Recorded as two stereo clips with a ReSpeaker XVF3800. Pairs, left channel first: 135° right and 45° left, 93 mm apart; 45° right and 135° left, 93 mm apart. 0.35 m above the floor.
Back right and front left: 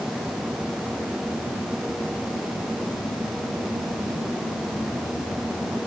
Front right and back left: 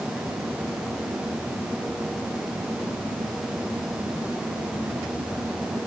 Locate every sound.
Only background noise.